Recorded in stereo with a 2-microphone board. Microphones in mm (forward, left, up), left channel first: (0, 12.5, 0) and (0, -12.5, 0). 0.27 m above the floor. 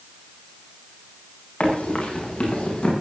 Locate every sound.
1.6 s running footsteps: 50° left (ahead or behind), 8 m; by 2.9 s 40° left (ahead or behind), 9 m